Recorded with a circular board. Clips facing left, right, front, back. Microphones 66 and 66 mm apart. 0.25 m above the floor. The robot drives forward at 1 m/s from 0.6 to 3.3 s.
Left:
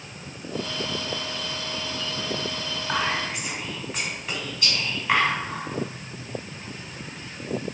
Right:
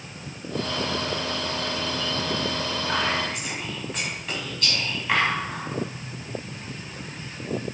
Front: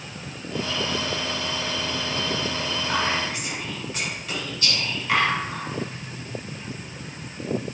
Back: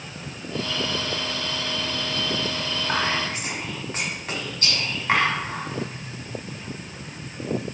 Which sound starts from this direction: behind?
Whispering, at 2.9 s.